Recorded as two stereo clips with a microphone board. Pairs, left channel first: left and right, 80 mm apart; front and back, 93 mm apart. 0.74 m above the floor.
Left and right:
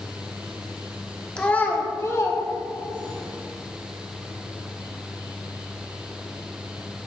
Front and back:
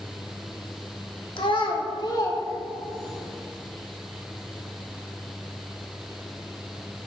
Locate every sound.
1.4 s a child speaking: 15° left, 1.3 m; by 3.2 s 55° left, 2.5 m